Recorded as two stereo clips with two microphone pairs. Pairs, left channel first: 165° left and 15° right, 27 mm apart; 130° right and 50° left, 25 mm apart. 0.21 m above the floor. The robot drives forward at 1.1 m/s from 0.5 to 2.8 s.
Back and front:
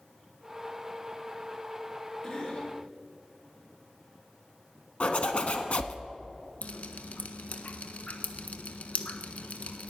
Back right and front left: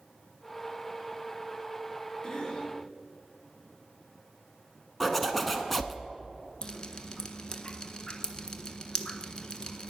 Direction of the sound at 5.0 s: 145° left.